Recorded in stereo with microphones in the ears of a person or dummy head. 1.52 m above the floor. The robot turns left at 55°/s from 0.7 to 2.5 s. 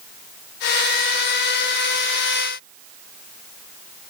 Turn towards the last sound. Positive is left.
No sound to turn to.